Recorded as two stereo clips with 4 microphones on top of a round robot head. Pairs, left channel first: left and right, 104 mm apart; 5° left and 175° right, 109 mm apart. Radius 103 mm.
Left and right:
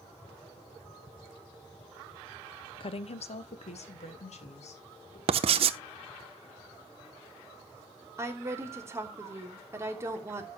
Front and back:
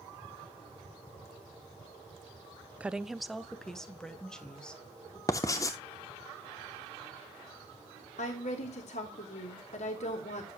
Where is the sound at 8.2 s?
25° right, 3 m.